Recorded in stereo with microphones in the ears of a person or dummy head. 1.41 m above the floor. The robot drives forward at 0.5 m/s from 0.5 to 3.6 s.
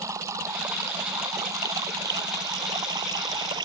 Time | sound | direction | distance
0.0 | running water | 20° right (ahead or behind) | ?